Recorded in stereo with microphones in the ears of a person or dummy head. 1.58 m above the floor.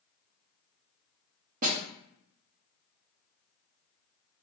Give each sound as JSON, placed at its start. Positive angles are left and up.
{"t": 1.6, "sound": "a snare drum", "side_deg": -50, "distance_m": 1.0}